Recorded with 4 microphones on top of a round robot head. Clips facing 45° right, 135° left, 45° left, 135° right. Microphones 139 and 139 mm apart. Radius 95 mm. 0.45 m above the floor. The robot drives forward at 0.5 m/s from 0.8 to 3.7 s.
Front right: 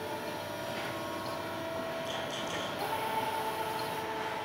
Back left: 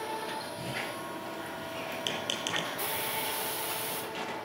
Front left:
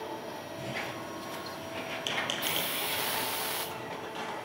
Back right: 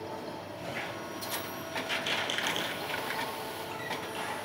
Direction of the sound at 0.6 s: 105° left.